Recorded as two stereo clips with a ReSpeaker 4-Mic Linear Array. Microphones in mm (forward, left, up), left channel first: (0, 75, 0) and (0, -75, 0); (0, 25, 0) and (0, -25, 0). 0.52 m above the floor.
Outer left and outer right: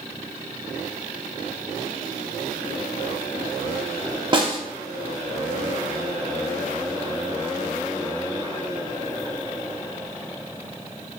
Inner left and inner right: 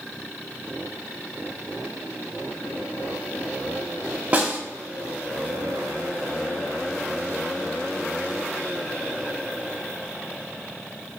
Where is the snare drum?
35° right (ahead or behind), 0.7 m.